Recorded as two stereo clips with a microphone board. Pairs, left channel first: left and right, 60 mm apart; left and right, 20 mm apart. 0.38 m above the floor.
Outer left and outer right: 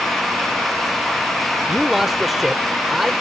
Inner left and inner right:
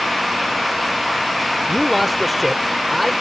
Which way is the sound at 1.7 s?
5° right (ahead or behind).